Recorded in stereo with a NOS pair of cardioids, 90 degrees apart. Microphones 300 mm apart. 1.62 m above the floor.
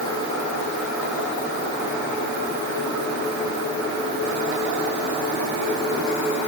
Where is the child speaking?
I don't hear a child speaking.